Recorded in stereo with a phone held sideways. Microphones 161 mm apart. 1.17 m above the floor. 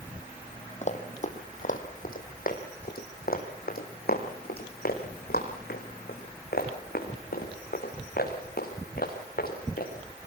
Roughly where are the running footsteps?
Left.